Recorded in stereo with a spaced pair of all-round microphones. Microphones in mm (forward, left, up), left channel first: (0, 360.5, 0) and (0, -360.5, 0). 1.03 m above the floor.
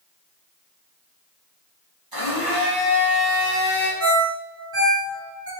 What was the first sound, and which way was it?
A blender, 30° right (ahead or behind).